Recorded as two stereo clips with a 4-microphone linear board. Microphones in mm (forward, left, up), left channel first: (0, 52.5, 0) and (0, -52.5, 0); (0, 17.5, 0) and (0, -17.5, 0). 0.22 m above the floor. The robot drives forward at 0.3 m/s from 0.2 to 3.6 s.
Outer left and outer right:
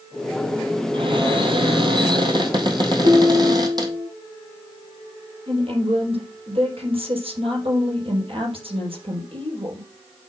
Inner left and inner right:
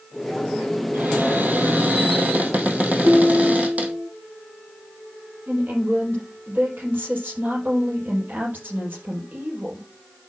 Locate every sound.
0.9 s a cupboard door: 55° right (ahead or behind), 2 m; by 3.9 s 40° right (ahead or behind), 3 m
3.0 s dishes clattering: 65° right (ahead or behind), 4 m
5.5 s a woman speaking: 60° right (ahead or behind), 5 m